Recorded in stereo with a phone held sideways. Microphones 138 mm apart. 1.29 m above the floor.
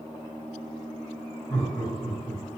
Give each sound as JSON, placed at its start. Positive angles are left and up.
{"t": 1.5, "sound": "laughter", "side_deg": 5, "distance_m": 2.0}